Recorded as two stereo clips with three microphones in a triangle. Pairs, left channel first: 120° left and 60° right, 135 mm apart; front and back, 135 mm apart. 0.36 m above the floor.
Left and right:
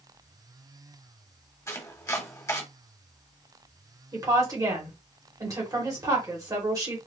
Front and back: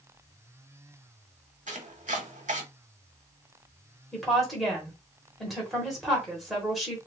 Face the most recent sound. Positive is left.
turn(degrees=-90)